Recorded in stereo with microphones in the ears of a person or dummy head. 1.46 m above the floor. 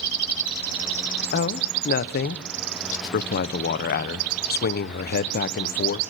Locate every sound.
1.3 s a man speaking: 55° left (ahead or behind), 1.0 m